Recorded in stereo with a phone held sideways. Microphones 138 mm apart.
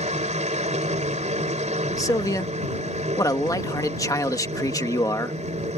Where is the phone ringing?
No phone ringing in this recording.